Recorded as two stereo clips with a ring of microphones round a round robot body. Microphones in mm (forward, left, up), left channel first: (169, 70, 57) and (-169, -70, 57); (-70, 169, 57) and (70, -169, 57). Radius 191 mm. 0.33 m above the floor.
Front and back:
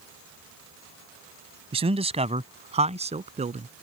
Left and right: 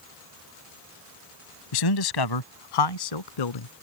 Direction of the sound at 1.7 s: 130° left.